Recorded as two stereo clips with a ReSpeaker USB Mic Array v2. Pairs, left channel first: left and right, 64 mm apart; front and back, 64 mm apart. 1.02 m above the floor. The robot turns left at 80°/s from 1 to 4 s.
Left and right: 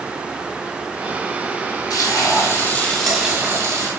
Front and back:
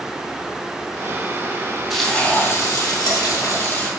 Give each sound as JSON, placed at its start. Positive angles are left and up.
{"t": 1.9, "sound": "frying", "azimuth_deg": 90, "distance_m": 3.0}